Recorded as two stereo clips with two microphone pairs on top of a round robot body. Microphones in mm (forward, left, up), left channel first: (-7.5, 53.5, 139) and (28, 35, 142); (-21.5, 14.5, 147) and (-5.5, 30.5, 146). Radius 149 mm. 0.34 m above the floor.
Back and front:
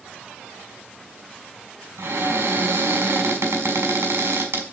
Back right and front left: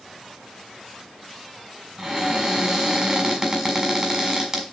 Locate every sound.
2.0 s a cupboard door: 25° right, 4 m